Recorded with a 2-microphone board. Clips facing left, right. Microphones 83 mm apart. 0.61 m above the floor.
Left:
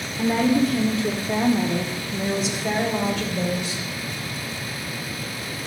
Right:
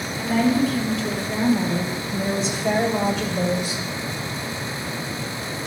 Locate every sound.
0.2 s a woman speaking: 65° left (ahead or behind), 1.4 m; by 3.8 s 20° right (ahead or behind), 1.9 m